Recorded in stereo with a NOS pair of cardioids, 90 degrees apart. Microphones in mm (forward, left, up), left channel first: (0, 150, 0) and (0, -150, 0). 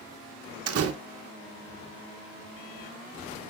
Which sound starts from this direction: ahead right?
A door slam, at 0.7 s.